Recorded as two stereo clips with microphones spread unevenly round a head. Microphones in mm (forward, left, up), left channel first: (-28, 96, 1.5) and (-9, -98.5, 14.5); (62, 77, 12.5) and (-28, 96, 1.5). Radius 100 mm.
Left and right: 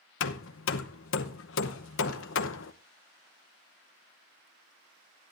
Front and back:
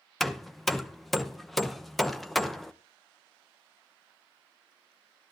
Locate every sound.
0.2 s hammering: 80° left, 0.8 m